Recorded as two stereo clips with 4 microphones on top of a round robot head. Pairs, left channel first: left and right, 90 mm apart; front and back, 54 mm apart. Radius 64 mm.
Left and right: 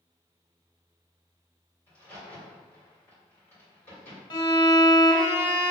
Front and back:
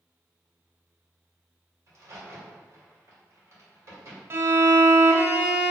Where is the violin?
140° left, 0.6 m.